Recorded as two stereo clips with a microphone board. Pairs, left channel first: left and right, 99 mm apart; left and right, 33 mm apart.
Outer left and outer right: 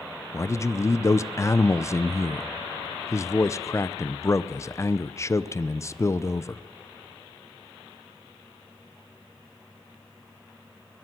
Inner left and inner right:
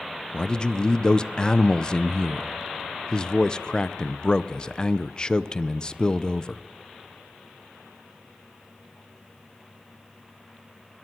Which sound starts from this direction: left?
A man speaking, at 0.3 s.